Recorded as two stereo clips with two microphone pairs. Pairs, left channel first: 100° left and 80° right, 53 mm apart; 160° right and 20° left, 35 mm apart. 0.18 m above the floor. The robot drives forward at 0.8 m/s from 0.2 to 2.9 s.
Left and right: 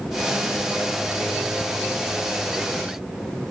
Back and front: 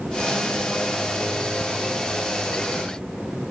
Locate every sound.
1.6 s ticking: 175° right